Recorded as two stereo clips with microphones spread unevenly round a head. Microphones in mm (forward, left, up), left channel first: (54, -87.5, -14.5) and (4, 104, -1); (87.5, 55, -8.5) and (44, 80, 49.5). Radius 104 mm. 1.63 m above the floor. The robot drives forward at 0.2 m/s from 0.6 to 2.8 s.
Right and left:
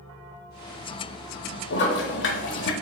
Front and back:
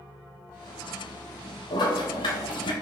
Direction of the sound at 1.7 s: 55° right.